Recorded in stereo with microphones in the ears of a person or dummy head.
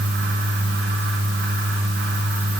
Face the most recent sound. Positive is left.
No sound to turn to.